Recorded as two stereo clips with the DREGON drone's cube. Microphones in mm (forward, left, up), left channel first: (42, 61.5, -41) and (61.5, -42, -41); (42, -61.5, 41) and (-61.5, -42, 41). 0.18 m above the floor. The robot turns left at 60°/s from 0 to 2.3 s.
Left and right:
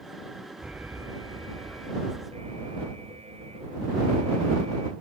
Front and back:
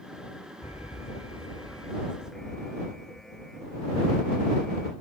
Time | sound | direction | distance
0.6 | an alarm | 5° left | ?